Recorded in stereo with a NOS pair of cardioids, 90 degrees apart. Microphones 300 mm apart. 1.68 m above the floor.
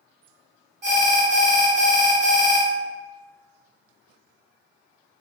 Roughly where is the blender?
No blender in this recording.